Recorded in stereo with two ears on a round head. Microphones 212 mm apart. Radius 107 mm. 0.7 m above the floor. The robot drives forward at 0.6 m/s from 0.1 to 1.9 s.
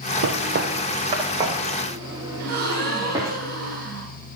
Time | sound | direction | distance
0.2 | footsteps | 55° right (ahead or behind) | 1.2 m
2.4 | a gasp | 45° right (ahead or behind) | 4 m